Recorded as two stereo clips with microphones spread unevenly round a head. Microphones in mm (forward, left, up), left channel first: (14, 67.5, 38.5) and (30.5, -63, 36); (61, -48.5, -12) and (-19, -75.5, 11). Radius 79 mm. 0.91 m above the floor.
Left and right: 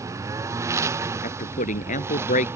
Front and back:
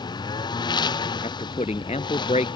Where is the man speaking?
70° left.